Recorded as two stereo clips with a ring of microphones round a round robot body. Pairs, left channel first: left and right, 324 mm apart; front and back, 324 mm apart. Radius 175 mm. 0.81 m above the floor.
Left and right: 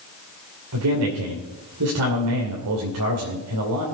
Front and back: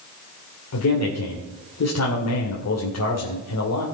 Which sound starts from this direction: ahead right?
A man speaking, at 0.7 s.